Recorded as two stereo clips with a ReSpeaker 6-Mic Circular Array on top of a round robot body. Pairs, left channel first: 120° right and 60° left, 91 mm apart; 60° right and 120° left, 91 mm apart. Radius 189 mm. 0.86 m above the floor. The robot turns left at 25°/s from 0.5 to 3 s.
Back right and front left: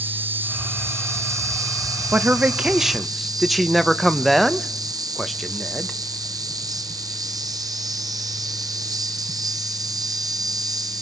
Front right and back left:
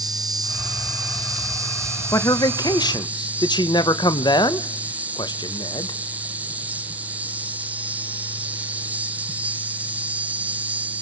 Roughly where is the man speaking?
Ahead.